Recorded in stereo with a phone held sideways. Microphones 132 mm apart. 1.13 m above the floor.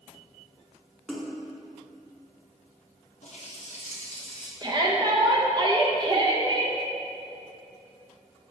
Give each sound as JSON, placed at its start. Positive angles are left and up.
{"t": 1.1, "sound": "a splash", "side_deg": 5, "distance_m": 0.7}
{"t": 3.2, "sound": "a running tap", "side_deg": 60, "distance_m": 1.2}
{"t": 4.6, "sound": "a shout", "side_deg": -35, "distance_m": 1.0}